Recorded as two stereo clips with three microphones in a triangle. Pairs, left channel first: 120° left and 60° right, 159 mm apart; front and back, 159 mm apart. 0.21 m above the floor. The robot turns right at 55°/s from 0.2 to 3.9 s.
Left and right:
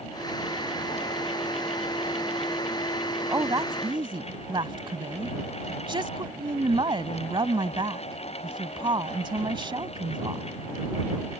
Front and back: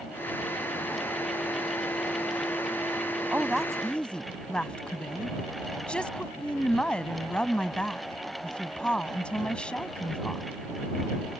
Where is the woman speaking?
110° right; by 10.5 s 75° right.